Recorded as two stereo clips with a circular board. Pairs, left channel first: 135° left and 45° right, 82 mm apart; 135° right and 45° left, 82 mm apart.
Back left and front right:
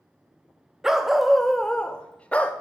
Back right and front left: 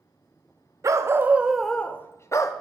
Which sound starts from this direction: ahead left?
A dog barking, at 0.8 s.